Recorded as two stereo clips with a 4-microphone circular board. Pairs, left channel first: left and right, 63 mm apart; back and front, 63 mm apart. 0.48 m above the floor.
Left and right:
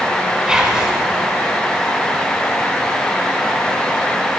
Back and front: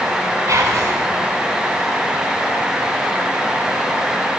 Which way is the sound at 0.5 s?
10° right.